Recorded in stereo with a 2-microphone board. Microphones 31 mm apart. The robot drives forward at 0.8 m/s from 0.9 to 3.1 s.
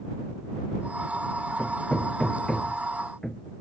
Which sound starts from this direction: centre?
Hammering, at 1.6 s.